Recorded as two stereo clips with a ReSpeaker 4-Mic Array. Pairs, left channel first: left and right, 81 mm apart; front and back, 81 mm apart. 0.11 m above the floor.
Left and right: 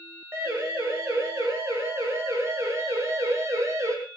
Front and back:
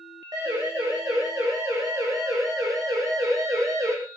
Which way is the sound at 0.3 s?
145° right.